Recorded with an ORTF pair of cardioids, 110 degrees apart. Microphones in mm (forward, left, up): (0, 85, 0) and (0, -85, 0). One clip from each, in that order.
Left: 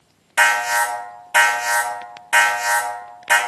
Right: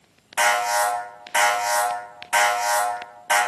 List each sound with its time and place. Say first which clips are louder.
0.4 s an alarm: left 3 dB; 30° left, 1.9 m